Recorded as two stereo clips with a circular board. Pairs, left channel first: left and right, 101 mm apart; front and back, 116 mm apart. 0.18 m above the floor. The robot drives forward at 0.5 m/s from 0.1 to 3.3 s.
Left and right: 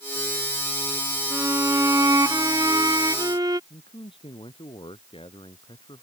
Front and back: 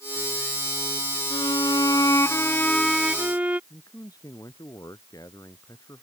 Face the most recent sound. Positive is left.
turn(degrees=60)